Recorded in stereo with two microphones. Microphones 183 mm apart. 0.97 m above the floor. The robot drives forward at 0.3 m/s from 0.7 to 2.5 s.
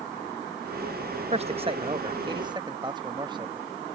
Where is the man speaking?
35° right (ahead or behind); by 3.7 s 25° right (ahead or behind).